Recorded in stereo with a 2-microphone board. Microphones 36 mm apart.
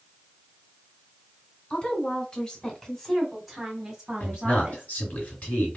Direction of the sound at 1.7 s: 35° left (ahead or behind).